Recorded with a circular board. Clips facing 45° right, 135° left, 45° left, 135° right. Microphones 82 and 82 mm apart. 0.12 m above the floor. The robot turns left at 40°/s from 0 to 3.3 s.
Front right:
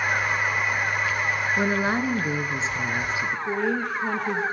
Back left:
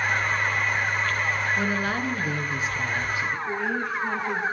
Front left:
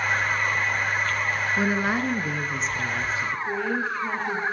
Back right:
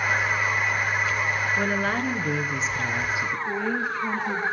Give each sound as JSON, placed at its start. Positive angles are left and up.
{"t": 1.6, "sound": "a woman speaking", "azimuth_deg": -15, "distance_m": 1.2}
{"t": 3.5, "sound": "a woman speaking", "azimuth_deg": -55, "distance_m": 2.5}